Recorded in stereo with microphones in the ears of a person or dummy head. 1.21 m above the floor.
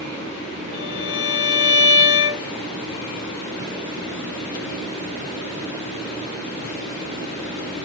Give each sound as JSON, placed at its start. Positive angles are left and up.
{"t": 0.7, "sound": "a violin", "side_deg": 60, "distance_m": 1.2}